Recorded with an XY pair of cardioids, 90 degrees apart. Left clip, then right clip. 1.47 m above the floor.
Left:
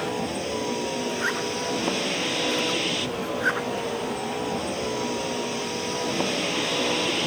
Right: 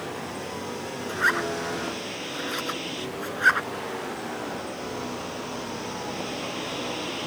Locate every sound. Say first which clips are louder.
0.0 s a vehicle: left 5 dB; 60° left
1.1 s a zipper: right 7 dB; 45° right